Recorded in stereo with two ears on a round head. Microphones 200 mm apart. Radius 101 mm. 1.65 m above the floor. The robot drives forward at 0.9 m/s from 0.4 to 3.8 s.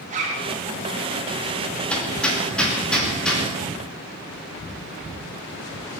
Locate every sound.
0.1 s a zipper: 35° right (ahead or behind), 3 m
1.9 s hammering: 5° left (ahead or behind), 2.5 m